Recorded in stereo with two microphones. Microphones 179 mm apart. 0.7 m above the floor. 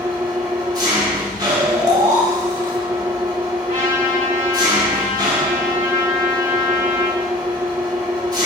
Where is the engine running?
25° right (ahead or behind), 1.1 m.